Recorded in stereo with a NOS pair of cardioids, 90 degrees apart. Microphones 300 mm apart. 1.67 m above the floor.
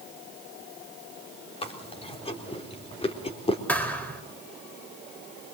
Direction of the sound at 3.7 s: 5° left.